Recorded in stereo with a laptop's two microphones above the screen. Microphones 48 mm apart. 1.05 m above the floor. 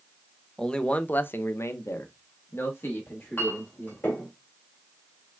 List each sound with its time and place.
0.6 s a man speaking: 15° left (ahead or behind), 0.7 m; by 4.1 s 45° left (ahead or behind), 1.8 m
3.1 s a clink: 50° left (ahead or behind), 2 m